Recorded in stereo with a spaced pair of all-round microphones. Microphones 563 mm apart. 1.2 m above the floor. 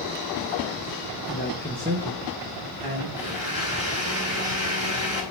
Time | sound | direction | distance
1.3 | a man speaking | 25° left (ahead or behind) | 1.2 m
3.2 | a blender | 70° right (ahead or behind) | 5 m